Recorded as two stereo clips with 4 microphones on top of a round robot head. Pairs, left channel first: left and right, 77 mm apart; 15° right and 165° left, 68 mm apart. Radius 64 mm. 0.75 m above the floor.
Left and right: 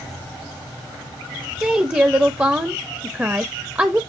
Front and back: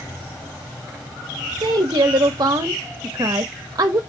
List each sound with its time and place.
1.6 s a woman speaking: 160° right, 0.9 m